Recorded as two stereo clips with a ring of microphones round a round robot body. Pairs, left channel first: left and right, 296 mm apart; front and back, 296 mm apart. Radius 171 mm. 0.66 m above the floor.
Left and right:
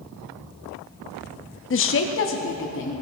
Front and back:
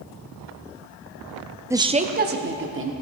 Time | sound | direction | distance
1.7 | a woman speaking | 100° left | 0.7 m